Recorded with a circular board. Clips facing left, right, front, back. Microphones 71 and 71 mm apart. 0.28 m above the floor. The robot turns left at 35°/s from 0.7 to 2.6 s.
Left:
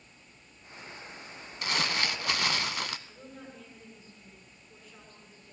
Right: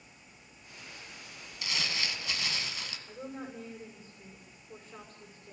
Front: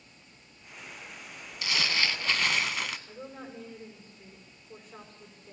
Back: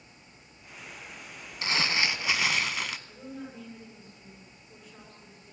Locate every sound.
1.6 s crumpling: 125° left, 0.8 m; by 3.0 s 90° left, 0.8 m
3.1 s a woman speaking: 50° right, 9 m